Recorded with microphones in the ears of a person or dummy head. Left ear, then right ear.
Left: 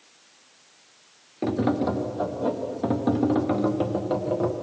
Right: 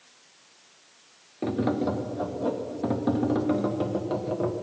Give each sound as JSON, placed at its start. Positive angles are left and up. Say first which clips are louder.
{"t": 1.4, "sound": "tapping", "louder": "left 2 dB", "side_deg": 5, "distance_m": 1.2}